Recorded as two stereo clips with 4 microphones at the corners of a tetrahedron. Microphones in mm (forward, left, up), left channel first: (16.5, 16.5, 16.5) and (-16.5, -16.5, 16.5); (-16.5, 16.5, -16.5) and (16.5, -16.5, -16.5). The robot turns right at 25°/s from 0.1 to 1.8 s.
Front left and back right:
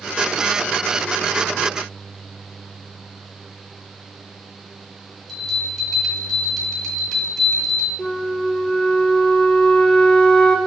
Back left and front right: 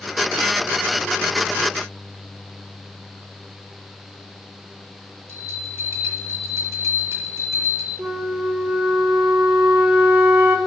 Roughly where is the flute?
Ahead right.